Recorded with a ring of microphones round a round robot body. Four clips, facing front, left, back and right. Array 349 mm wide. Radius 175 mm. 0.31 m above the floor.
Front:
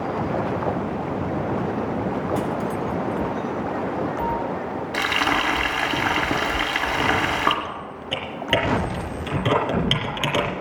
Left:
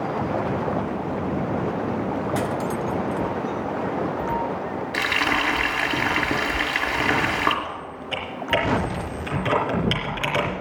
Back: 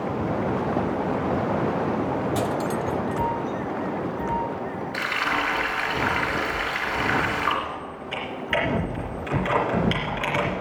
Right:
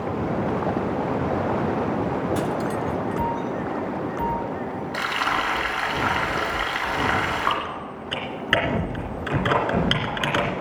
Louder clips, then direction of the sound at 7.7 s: Even, front 1 dB; 25° right.